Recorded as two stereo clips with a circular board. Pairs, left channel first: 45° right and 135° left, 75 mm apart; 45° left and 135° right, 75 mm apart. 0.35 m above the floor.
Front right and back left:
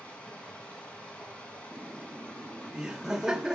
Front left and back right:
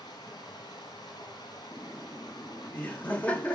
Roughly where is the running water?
Ahead left.